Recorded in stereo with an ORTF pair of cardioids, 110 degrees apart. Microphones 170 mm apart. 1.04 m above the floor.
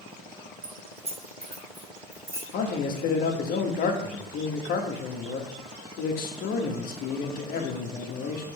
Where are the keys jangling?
45° right, 1.3 m; by 2.4 s 15° right, 2 m.